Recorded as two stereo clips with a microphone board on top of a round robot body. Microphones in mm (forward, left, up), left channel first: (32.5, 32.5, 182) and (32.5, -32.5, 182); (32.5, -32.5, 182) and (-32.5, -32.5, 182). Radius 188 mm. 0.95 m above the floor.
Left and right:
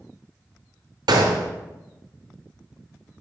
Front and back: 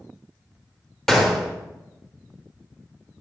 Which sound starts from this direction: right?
A gunshot, at 1.1 s.